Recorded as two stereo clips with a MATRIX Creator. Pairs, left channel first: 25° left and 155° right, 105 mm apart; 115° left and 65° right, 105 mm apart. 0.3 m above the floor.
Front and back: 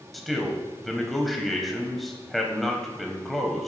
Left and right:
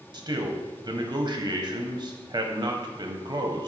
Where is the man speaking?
65° right, 1.2 m.